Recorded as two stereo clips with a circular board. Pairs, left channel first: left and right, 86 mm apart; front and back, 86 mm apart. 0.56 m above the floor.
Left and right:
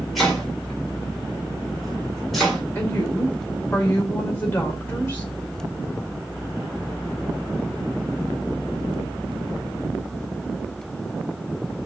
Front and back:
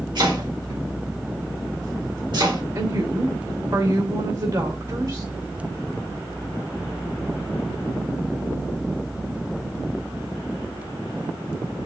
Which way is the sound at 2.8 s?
155° left.